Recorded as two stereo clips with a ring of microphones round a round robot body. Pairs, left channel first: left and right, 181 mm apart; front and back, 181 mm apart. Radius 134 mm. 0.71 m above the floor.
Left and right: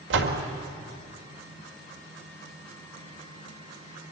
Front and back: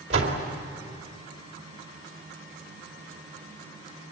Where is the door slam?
115° right, 2 m.